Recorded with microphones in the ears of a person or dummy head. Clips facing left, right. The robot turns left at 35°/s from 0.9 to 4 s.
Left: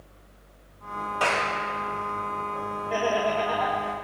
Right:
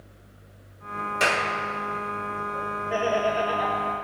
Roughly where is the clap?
Right.